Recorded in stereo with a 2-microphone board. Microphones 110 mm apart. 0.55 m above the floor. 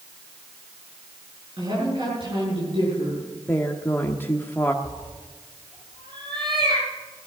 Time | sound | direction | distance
1.6 | a woman speaking | 55° right (ahead or behind) | 8 m
3.5 | a woman speaking | 20° left (ahead or behind) | 1.1 m
4.8 | a cat meowing | 50° right (ahead or behind) | 5.5 m